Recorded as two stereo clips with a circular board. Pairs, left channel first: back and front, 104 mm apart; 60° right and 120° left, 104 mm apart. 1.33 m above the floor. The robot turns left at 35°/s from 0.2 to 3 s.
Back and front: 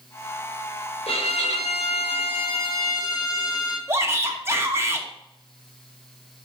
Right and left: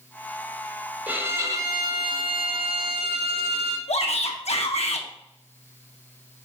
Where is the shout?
65° right, 1.4 m.